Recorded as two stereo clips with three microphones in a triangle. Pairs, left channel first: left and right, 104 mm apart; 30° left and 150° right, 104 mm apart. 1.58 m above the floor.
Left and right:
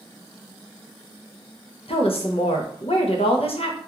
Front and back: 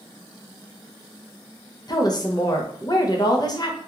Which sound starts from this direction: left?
A woman speaking, at 1.9 s.